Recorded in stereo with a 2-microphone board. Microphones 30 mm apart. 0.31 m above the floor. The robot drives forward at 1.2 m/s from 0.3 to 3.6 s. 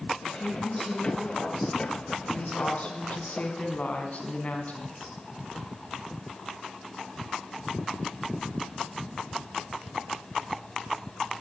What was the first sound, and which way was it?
A woman speaking, 25° left (ahead or behind).